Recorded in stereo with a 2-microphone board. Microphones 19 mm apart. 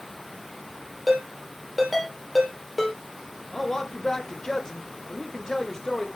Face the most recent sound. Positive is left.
turn(degrees=25)  # may be behind; listen again after turning